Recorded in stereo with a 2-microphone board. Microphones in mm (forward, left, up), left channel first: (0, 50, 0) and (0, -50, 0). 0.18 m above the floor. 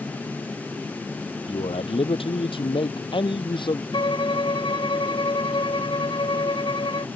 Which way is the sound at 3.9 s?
50° left (ahead or behind).